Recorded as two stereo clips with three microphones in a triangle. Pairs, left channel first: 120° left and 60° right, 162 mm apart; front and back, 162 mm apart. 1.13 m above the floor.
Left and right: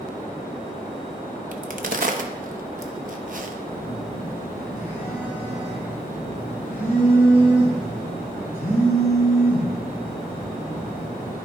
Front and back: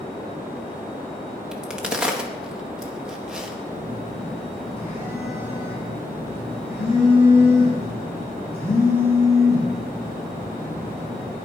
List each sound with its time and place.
1.5 s a crack: 95° right, 0.8 m
3.7 s a phone buzzing: 105° left, 3.5 m